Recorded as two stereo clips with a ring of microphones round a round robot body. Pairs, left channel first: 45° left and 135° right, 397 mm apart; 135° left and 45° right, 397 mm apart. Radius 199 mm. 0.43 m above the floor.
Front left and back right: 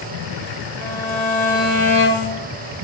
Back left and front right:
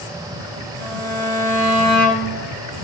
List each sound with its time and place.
0.8 s a violin: 90° left, 5.5 m